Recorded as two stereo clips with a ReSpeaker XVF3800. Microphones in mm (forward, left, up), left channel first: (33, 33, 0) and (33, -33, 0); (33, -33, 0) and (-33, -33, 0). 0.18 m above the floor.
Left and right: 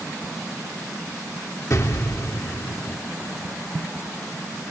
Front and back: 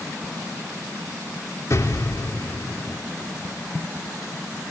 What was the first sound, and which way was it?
An explosion, 50° left.